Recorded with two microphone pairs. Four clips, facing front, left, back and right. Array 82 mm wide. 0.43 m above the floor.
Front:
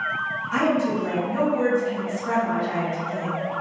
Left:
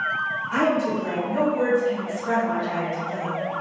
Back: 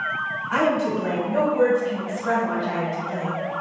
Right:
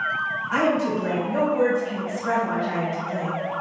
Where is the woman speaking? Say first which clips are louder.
Even, back 1 dB; 160° right, 1.6 m.